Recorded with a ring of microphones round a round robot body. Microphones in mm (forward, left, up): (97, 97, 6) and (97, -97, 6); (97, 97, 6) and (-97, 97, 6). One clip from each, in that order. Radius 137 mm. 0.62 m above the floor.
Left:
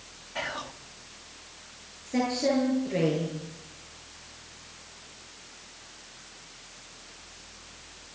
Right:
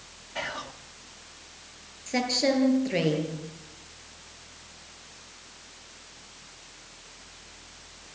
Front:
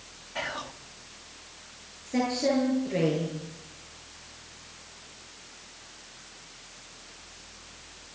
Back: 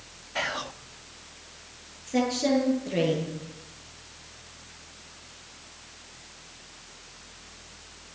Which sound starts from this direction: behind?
Whispering, at 0.3 s.